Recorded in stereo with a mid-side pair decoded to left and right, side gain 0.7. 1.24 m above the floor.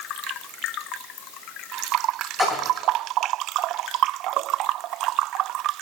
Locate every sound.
2.4 s a splash: 10° left, 7 m